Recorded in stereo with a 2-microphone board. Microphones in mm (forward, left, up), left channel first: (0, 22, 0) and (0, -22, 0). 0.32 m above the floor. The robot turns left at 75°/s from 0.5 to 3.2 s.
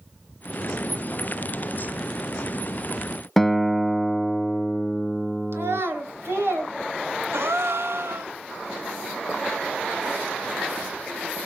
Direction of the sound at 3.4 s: 5° left (ahead or behind).